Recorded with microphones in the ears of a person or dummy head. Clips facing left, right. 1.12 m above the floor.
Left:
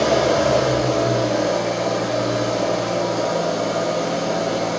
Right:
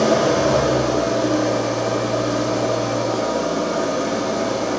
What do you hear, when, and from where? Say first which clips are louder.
0.0 s an engine running: right 1 dB; 85° right, 5.5 m